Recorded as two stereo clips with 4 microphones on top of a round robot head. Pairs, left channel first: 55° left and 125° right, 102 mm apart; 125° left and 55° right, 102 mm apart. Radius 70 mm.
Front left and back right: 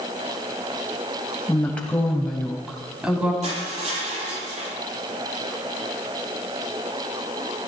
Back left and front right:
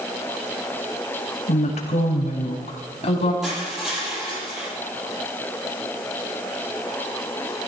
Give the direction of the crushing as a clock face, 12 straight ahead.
5 o'clock.